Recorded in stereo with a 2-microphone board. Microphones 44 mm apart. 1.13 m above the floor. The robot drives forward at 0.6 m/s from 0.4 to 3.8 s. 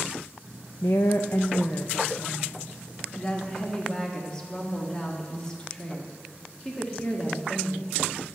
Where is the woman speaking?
80° left, 0.5 m; by 8.0 s 15° left (ahead or behind), 1.8 m.